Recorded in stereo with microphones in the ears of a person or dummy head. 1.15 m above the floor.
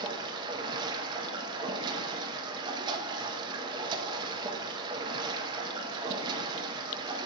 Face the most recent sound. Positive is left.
turn(degrees=-25)  # may be behind; listen again after turning